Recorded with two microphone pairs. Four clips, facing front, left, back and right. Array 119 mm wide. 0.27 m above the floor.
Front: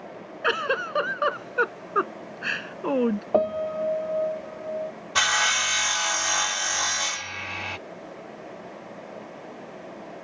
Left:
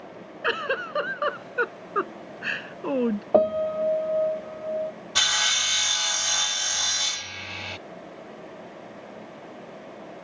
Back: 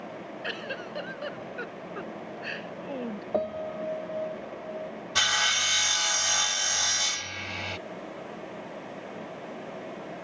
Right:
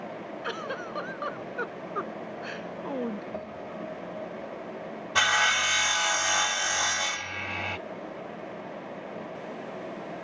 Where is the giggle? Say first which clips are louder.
Left 9 dB, front 13 dB; 30° left.